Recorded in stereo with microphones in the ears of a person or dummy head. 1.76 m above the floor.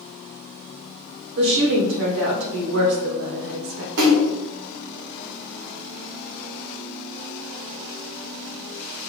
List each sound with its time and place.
1.4 s a woman speaking: 70° right (ahead or behind), 1.4 m
4.0 s a splash: 65° right (ahead or behind), 1.6 m